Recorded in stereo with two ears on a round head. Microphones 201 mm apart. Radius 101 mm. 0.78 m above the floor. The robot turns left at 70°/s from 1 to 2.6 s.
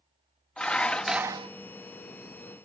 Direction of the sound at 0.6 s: 5° left.